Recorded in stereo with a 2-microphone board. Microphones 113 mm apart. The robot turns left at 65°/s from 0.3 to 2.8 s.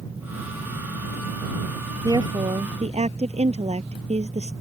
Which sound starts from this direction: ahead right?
A woman speaking, at 2.0 s.